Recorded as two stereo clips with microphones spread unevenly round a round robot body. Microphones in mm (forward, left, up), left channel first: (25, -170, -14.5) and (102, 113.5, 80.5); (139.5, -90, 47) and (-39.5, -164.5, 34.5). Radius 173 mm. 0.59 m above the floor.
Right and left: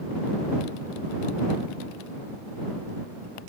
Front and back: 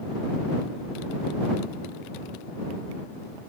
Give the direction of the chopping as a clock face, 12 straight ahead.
No chopping in this recording.